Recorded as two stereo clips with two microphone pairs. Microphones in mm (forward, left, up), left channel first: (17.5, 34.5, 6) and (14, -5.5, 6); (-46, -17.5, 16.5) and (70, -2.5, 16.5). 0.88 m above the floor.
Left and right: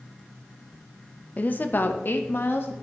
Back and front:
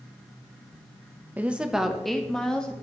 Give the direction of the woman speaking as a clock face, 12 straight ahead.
9 o'clock.